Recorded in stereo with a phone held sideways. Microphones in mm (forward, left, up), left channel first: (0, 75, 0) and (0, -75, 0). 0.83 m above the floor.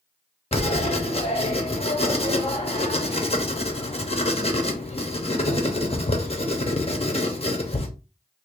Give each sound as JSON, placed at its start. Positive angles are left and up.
{"t": 0.5, "sound": "writing", "side_deg": 45, "distance_m": 0.7}